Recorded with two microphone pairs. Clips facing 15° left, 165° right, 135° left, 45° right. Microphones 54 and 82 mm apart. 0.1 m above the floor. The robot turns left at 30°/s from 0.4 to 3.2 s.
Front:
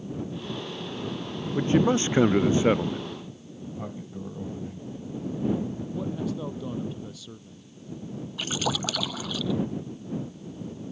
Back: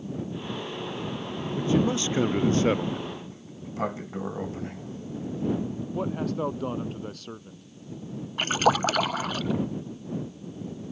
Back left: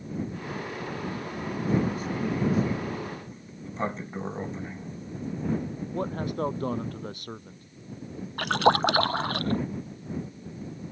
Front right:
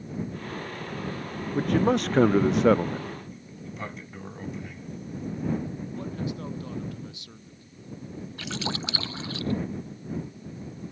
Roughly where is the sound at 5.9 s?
Behind.